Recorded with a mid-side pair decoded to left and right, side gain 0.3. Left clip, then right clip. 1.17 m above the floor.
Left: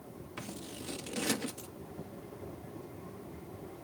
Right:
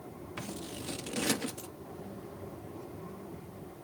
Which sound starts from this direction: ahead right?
Scissors, at 0.4 s.